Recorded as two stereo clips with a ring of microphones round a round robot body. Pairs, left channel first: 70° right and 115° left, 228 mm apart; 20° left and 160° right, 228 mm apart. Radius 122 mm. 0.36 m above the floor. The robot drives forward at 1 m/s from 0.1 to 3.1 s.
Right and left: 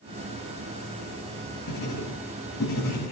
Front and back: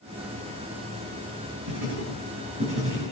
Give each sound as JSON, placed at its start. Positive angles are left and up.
{"t": 1.7, "sound": "writing", "azimuth_deg": -115, "distance_m": 8.5}